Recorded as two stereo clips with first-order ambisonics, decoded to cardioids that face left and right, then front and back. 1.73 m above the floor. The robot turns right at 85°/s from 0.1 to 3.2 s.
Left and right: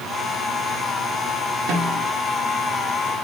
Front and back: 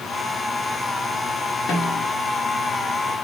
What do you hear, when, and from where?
1.7 s a snare drum: 60° right, 4.5 m; by 2.1 s 30° right, 4.5 m